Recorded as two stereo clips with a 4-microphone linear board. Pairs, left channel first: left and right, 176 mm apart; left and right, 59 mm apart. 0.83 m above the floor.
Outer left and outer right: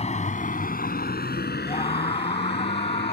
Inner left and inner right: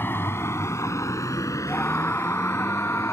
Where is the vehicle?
40° left (ahead or behind); by 3.1 s 85° left.